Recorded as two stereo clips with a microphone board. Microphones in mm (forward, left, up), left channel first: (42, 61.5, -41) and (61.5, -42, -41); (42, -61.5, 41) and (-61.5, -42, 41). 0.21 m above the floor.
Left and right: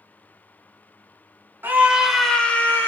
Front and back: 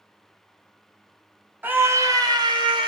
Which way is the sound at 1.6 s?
130° right.